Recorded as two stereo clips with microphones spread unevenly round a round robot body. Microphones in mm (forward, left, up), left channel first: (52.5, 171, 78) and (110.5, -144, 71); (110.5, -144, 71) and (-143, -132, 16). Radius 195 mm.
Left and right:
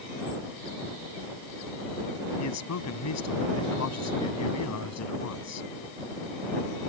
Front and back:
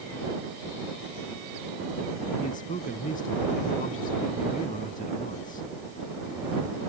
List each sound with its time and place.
2.4 s a man speaking: 70° left